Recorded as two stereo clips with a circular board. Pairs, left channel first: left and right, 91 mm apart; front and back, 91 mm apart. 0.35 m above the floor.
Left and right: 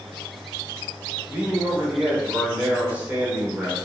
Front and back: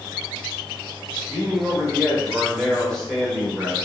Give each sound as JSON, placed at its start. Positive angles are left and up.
{"t": 1.3, "sound": "a man speaking", "azimuth_deg": -75, "distance_m": 0.8}